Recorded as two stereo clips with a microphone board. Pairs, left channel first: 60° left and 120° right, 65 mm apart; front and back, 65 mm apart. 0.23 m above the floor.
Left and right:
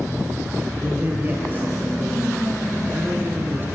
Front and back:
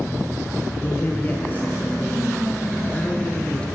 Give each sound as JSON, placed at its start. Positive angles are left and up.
{"t": 0.8, "sound": "a man speaking", "azimuth_deg": -60, "distance_m": 6.0}